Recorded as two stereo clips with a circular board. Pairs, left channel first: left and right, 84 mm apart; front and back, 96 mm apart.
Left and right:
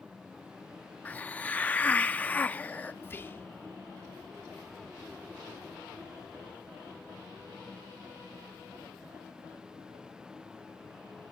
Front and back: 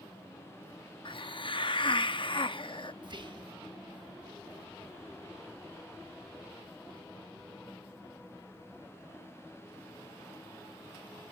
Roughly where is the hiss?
Ahead.